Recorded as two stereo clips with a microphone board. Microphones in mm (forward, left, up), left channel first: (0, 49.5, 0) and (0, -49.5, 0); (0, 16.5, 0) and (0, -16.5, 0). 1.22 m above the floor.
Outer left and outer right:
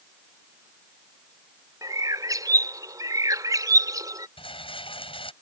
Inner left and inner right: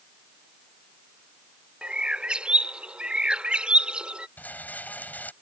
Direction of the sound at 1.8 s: 40° right (ahead or behind).